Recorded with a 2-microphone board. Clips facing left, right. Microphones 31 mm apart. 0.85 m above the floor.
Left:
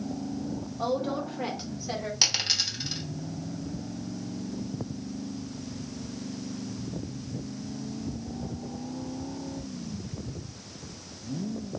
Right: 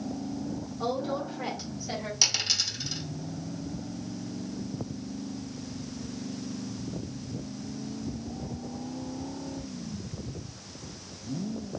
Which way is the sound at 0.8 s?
55° left (ahead or behind).